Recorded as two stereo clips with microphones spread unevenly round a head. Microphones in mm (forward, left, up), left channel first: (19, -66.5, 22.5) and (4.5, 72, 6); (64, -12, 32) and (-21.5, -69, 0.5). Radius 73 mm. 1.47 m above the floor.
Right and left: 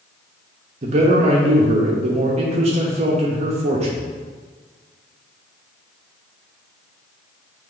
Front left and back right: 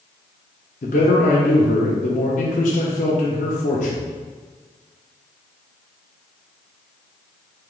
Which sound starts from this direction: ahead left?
A man speaking, at 0.8 s.